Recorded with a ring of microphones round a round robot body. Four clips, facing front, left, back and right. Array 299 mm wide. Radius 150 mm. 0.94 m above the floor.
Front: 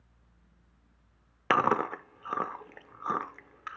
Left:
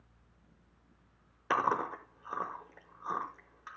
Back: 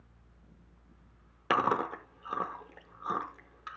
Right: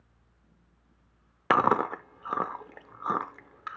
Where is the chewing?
75° right, 0.7 m.